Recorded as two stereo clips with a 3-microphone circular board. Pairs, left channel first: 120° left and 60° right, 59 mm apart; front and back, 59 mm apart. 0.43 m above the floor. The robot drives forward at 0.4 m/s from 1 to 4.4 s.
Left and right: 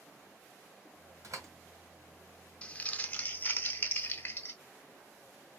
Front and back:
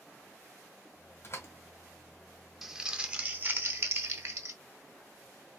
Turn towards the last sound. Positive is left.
turn(degrees=165)